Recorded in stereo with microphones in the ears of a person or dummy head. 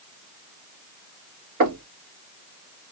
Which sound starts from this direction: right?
Knocking, at 1.6 s.